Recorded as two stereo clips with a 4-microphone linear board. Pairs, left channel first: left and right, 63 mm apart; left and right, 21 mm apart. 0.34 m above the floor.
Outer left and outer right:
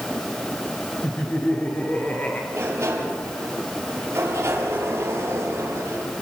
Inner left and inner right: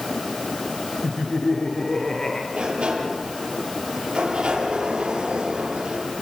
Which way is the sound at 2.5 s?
40° right (ahead or behind).